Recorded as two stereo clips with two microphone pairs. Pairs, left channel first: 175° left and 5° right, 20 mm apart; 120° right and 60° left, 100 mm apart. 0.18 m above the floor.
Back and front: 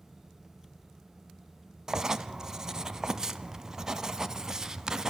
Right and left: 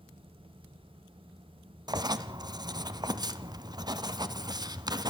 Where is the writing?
55° left, 0.9 m.